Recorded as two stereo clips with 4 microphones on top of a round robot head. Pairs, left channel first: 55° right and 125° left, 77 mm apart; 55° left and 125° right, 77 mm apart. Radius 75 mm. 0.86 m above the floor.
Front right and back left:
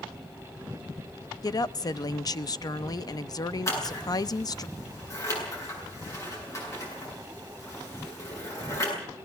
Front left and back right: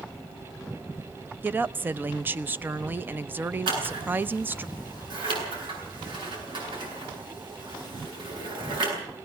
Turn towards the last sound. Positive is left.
turn(degrees=-105)